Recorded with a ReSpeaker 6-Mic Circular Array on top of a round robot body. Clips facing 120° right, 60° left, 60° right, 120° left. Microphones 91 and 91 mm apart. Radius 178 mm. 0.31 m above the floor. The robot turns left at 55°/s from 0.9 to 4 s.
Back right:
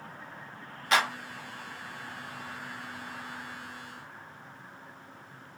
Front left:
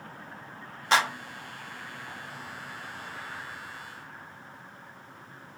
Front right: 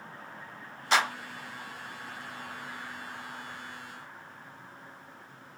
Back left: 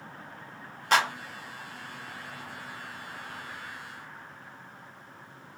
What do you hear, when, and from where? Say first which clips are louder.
0.9 s a clap: front left 2 dB, back left 2 dB; 110° left, 1.6 m; by 1.1 s 100° left, 1.6 m